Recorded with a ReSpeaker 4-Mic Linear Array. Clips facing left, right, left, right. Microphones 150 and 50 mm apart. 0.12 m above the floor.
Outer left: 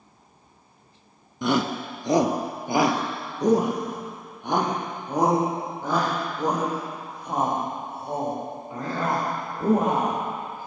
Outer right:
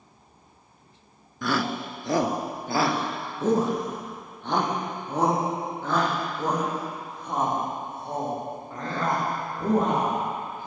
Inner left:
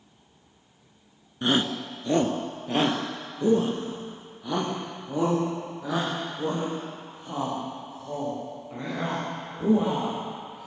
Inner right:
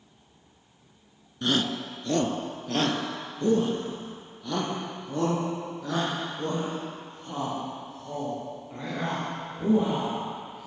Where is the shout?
20° left (ahead or behind), 1.4 m; by 10.7 s 10° left (ahead or behind), 12.5 m.